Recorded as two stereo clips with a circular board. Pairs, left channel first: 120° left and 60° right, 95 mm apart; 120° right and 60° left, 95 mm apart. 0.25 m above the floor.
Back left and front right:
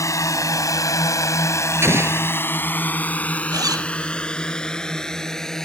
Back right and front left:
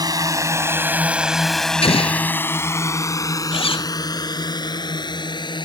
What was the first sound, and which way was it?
A drone, 80° left.